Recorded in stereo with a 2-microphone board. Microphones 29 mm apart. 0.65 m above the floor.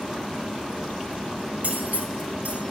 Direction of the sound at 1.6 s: 70° right (ahead or behind).